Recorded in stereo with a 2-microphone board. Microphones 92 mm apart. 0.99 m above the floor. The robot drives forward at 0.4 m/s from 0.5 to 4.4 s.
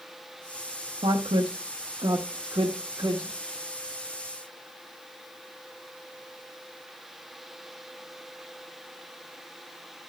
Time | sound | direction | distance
1.0 | a woman speaking | 80° right | 0.9 m